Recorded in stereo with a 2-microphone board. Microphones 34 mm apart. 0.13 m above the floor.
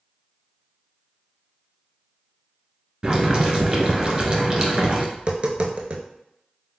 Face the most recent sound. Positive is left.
turn(degrees=-40)  # may be behind; listen again after turning